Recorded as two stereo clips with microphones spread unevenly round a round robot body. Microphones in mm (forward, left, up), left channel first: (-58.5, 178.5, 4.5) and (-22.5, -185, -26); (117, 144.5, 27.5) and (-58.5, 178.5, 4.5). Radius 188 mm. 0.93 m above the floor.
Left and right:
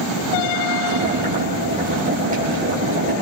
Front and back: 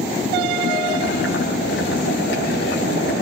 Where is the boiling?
15° right, 6.5 m.